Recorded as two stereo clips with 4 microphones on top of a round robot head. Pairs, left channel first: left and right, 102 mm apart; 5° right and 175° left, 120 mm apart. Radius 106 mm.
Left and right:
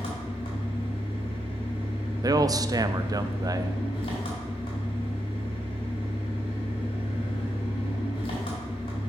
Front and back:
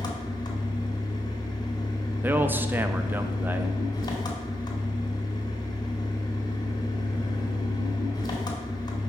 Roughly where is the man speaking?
Behind right.